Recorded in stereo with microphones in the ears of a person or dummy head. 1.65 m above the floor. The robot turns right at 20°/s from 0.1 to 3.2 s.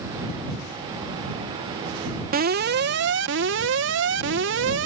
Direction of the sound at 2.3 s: 50° right (ahead or behind).